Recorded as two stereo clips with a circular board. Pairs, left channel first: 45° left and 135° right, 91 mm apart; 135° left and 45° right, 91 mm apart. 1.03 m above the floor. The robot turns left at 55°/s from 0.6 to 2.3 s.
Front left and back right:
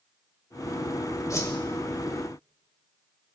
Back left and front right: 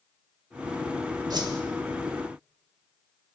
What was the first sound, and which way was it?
A whoosh, 5° right.